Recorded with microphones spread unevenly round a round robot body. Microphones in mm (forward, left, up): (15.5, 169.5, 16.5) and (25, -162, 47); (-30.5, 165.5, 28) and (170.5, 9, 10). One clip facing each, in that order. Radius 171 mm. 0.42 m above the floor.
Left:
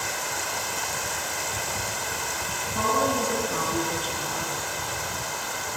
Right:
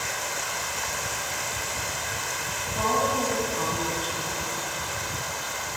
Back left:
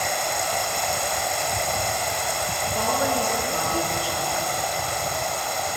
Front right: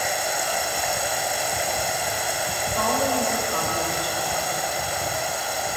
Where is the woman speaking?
60° left, 7 m.